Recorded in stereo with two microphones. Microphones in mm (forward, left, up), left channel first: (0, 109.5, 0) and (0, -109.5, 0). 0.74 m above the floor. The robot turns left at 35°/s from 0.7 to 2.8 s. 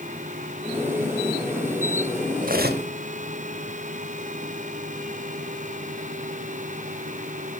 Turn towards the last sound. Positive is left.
turn(degrees=-50)  # may be behind; listen again after turning